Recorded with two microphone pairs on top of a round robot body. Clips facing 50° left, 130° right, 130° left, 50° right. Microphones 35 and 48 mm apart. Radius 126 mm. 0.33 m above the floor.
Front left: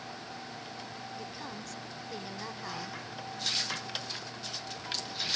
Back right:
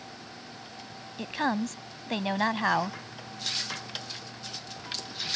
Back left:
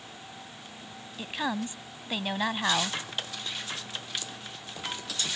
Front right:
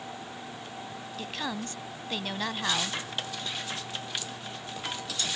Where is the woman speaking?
155° right.